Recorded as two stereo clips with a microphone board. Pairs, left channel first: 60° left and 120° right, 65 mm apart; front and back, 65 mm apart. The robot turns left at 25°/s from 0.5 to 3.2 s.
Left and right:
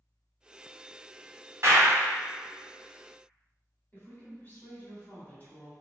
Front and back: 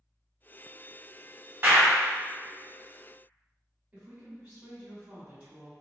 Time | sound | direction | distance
1.6 | a clap | 140° right | 1.2 m
3.9 | a woman speaking | 115° left | 2.0 m